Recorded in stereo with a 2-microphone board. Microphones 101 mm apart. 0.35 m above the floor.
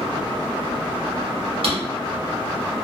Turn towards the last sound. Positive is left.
turn(degrees=-70)  # may be behind; listen again after turning